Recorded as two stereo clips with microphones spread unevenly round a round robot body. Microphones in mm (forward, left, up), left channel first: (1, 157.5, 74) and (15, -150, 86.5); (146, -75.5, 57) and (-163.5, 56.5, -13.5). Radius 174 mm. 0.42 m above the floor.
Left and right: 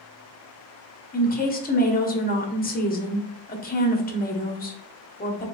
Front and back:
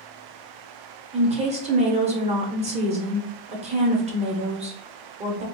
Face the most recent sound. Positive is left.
turn(degrees=125)